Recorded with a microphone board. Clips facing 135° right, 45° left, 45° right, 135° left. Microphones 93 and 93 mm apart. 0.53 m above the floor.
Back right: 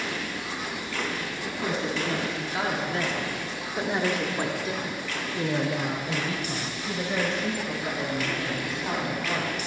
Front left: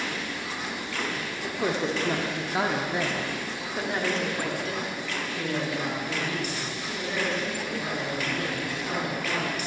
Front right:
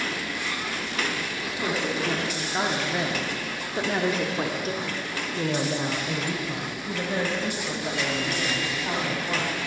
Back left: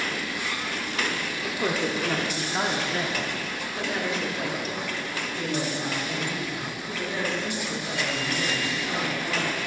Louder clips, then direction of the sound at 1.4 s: Front left 3 dB, back left 2 dB; 80° left.